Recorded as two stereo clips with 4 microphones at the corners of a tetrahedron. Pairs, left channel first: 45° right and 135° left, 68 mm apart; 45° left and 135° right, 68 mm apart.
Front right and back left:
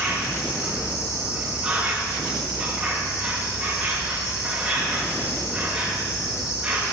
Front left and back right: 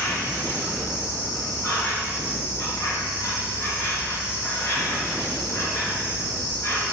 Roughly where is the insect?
Ahead left.